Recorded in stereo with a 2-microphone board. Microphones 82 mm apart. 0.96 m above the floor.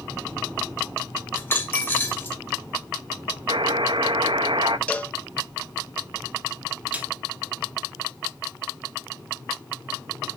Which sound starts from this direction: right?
A buzzer, at 3.5 s.